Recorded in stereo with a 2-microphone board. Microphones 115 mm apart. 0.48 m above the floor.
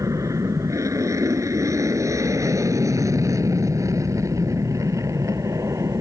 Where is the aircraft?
25° right (ahead or behind).